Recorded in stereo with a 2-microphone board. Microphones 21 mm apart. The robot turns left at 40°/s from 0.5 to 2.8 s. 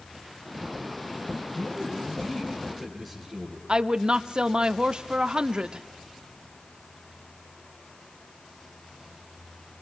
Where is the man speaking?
60° left, 9.5 m; by 3.6 s 10° left, 9.5 m.